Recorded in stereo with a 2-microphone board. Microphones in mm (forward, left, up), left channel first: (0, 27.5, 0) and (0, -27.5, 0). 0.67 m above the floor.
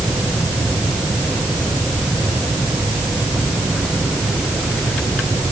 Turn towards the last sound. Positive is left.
No sound to turn to.